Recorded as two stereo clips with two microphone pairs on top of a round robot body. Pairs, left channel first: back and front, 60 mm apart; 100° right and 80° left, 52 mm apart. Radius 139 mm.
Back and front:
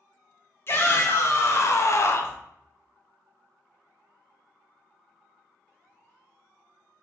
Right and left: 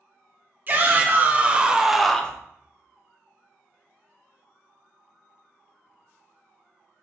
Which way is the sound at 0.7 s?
130° left.